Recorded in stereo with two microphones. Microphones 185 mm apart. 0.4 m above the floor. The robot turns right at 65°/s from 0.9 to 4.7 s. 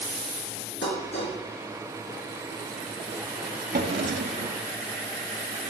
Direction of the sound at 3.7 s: 130° right.